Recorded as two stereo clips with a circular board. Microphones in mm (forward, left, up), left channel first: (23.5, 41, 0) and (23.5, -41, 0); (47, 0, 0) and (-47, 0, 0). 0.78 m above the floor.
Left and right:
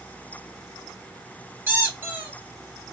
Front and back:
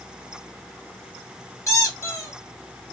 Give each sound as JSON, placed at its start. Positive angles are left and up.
{"t": 1.7, "sound": "a squeak", "azimuth_deg": -35, "distance_m": 1.0}